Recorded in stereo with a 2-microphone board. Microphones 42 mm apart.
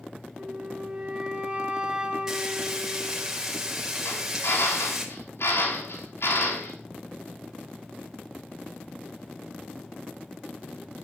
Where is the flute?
25° right (ahead or behind), 3.5 m.